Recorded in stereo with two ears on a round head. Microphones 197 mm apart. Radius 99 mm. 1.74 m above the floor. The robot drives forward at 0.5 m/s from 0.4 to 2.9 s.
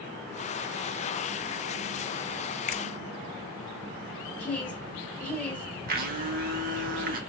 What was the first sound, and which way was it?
A finger snap, 30° left (ahead or behind).